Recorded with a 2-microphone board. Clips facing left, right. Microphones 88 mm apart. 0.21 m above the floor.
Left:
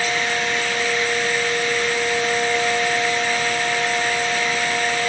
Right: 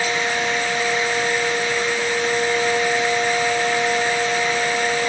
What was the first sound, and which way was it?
Only background noise.